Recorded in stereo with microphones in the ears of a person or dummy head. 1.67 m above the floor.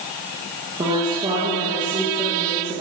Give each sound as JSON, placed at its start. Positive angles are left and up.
{"t": 0.8, "sound": "a woman speaking", "side_deg": -20, "distance_m": 1.4}